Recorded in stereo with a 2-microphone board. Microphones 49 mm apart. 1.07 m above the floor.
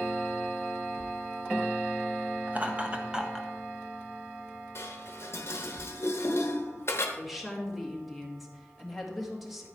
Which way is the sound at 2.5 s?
30° right (ahead or behind).